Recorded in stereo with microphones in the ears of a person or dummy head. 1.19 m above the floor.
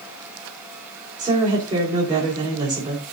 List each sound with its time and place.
1.2 s a woman speaking: 20° right (ahead or behind), 4.5 m